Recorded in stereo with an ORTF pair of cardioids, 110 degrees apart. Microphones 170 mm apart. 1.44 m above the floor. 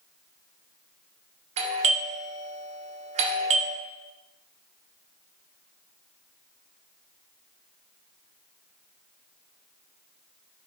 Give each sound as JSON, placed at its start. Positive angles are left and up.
{"t": 1.6, "sound": "a doorbell", "azimuth_deg": -45, "distance_m": 0.6}